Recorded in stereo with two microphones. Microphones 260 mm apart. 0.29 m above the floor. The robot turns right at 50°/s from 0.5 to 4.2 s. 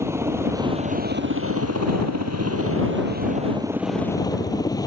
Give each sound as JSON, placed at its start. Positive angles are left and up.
{"t": 0.0, "sound": "a helicopter", "side_deg": -10}